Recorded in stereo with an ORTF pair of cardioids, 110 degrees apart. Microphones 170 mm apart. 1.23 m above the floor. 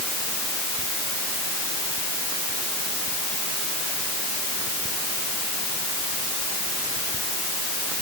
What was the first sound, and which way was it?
Only background noise.